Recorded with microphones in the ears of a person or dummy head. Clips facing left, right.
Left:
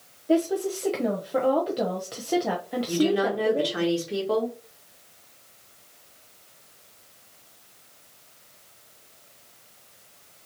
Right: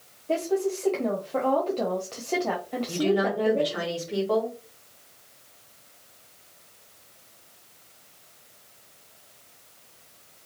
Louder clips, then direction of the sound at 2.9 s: Left 1 dB; 35° left (ahead or behind).